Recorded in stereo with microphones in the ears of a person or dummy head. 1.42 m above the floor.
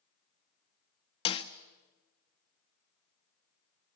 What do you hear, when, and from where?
1.2 s a snare drum: 30° left (ahead or behind), 1.4 m